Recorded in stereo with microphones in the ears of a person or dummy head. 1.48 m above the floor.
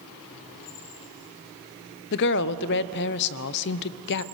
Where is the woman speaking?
60° left (ahead or behind), 0.7 m.